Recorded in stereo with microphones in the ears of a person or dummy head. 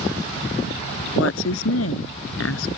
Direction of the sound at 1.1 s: 90° left.